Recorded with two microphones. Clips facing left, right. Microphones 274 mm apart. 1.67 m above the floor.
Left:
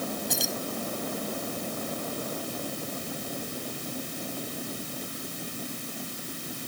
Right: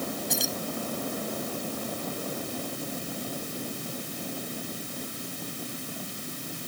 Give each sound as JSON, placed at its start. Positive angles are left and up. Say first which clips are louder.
{"t": 0.3, "sound": "keys jangling", "louder": "even", "side_deg": 0}